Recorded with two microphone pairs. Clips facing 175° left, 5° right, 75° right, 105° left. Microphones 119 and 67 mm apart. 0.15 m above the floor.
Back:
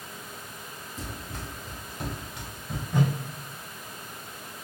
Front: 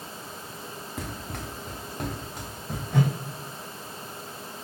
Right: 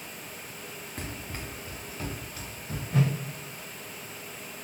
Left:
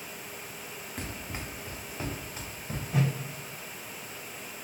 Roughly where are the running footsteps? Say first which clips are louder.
Front 2 dB, even; ahead.